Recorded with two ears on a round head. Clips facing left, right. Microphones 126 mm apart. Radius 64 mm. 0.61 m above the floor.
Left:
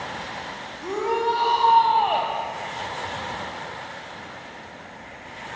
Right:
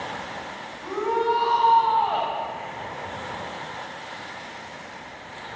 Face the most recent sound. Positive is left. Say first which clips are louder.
# even
turn(degrees=30)  # may be behind; listen again after turning